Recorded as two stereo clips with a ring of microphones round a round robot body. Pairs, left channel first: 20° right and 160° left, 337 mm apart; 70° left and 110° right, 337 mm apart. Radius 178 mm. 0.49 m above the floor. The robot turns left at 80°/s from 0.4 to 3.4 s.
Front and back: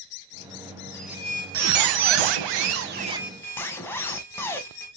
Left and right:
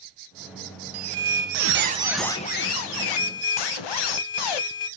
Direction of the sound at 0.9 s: 105° right.